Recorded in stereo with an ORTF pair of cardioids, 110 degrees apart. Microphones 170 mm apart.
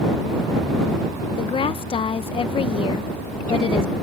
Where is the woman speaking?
30° left.